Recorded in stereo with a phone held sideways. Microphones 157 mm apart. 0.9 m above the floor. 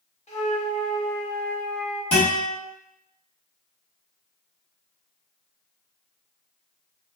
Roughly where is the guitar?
Left.